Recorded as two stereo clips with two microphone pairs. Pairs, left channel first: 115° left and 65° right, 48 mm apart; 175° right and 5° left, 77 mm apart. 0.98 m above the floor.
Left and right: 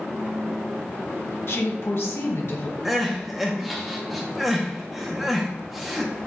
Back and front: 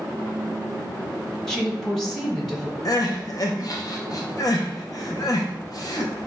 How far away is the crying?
About 0.7 m.